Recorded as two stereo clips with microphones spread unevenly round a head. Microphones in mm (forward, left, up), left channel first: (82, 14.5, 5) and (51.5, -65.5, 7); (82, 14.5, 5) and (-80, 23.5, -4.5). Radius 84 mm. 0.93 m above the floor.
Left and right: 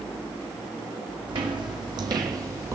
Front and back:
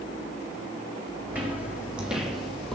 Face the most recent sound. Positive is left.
turn(degrees=-85)